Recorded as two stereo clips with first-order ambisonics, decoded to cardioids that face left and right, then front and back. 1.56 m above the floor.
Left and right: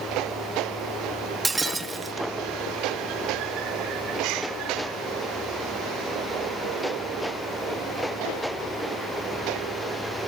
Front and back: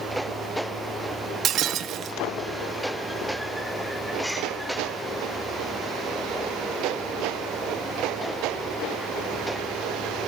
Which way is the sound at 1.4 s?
160° right.